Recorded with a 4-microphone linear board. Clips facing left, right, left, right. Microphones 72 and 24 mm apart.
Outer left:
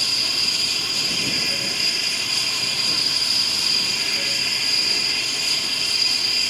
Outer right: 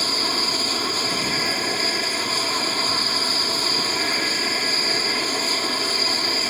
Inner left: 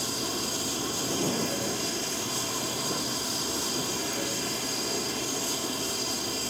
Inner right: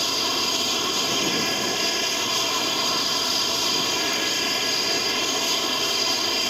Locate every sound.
0.0 s an aircraft: 45° right (ahead or behind)